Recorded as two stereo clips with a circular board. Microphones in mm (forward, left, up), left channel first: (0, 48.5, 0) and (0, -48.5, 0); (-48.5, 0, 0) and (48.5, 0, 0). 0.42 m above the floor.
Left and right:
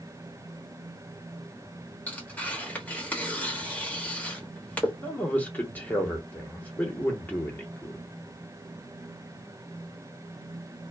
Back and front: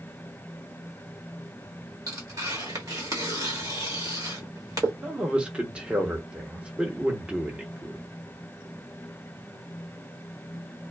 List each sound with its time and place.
2.1 s tearing paper: 25° left, 1.3 m
5.0 s a man speaking: 60° left, 1.0 m